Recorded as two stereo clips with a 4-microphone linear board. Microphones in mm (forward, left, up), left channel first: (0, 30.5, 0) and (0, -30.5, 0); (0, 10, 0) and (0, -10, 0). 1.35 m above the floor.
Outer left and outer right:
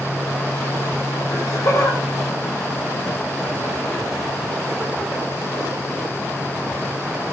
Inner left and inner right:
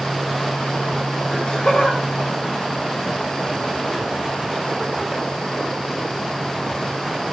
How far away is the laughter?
About 1.2 m.